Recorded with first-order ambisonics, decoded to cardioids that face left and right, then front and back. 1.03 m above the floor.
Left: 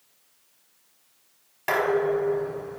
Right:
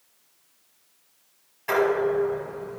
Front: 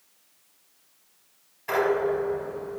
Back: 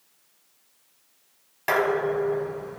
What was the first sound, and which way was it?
Dishes clattering, 145° left.